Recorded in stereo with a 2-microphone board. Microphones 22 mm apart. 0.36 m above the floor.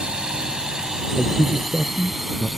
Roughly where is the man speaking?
Left.